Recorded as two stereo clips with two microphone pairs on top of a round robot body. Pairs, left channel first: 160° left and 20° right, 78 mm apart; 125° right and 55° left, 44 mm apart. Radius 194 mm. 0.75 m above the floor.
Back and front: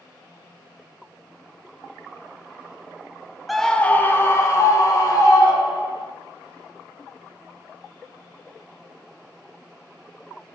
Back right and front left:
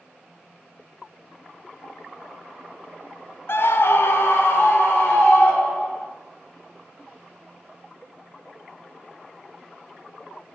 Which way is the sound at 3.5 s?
115° right.